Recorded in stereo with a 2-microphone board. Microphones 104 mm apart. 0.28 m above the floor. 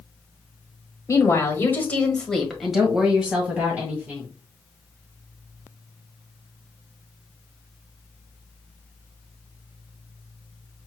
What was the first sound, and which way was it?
A woman speaking, 30° left (ahead or behind).